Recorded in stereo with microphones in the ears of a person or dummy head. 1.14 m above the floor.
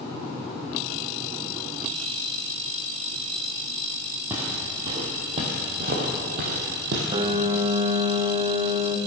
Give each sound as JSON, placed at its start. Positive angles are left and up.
{"t": 4.3, "sound": "footsteps", "side_deg": -10, "distance_m": 2.0}
{"t": 7.1, "sound": "a piano", "side_deg": -25, "distance_m": 0.8}